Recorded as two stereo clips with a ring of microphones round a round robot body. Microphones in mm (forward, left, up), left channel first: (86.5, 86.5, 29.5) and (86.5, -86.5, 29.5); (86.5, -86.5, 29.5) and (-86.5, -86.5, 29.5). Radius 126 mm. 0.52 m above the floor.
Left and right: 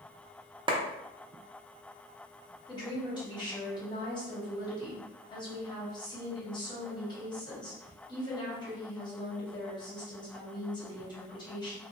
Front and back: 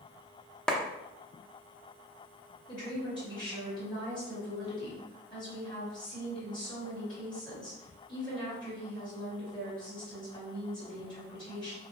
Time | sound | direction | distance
0.7 | a clap | 80° right | 0.5 m
2.7 | a woman speaking | 45° left | 1.4 m